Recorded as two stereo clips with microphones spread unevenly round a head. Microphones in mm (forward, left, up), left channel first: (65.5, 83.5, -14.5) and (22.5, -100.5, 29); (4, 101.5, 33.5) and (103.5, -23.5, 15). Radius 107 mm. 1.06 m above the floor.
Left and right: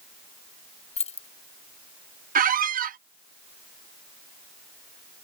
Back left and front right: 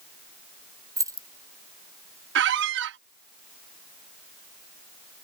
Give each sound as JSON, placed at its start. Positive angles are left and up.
{"t": 1.0, "sound": "keys jangling", "azimuth_deg": 20}
{"t": 2.4, "sound": "a squeak", "azimuth_deg": -70}